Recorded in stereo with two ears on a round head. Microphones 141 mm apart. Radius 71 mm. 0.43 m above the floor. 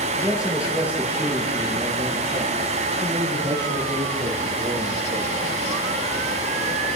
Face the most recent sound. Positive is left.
turn(degrees=-35)  # may be behind; listen again after turning